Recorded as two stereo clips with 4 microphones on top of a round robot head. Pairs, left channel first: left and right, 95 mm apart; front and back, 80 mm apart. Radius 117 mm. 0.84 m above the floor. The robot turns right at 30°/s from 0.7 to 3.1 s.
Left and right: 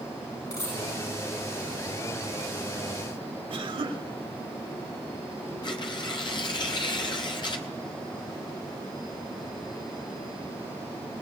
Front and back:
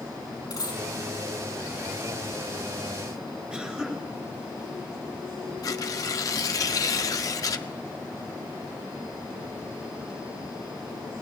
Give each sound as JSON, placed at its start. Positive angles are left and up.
{"t": 0.5, "sound": "a dropped coin", "azimuth_deg": 35, "distance_m": 7.5}
{"t": 3.5, "sound": "a cough", "azimuth_deg": -105, "distance_m": 3.0}
{"t": 5.6, "sound": "tearing paper", "azimuth_deg": 45, "distance_m": 0.9}